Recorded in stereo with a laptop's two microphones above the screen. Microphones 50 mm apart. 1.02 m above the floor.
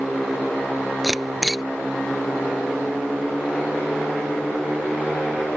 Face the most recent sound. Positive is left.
turn(degrees=0)  # may be behind; listen again after turning